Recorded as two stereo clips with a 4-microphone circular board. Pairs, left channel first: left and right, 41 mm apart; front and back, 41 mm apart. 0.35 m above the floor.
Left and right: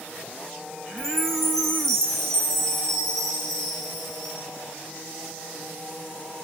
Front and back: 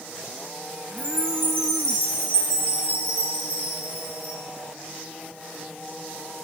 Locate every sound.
1.0 s a chime: 175° left, 5 m